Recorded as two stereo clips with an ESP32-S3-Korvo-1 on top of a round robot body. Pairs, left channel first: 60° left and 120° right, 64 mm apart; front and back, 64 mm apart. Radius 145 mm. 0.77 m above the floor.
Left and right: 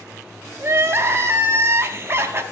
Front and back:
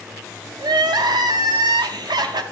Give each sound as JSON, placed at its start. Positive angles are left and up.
{"t": 0.6, "sound": "crying", "azimuth_deg": -175, "distance_m": 0.6}